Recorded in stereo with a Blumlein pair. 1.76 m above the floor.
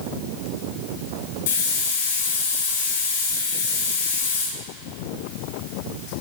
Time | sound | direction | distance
1.5 | a hiss | 55° left | 7 m